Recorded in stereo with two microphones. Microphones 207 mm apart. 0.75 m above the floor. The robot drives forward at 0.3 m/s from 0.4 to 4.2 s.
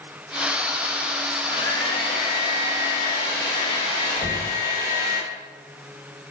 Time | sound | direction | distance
1.3 | a hair dryer | 25° left (ahead or behind) | 1.2 m
4.2 | knocking | 5° left (ahead or behind) | 1.5 m